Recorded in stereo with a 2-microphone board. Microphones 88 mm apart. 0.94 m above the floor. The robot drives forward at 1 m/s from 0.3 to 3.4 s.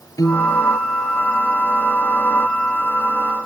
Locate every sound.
0.2 s a piano: 40° left (ahead or behind)